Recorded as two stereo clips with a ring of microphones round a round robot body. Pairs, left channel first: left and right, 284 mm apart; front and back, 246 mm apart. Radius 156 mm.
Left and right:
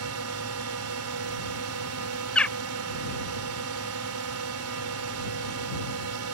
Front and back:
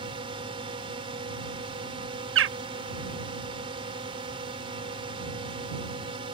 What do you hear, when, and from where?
0.0 s a drone: 110° right
2.4 s a bird: 175° left